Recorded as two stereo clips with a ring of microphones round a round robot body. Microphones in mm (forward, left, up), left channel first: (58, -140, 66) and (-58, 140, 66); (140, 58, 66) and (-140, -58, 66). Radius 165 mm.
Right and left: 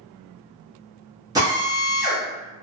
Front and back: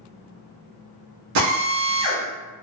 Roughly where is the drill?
Behind.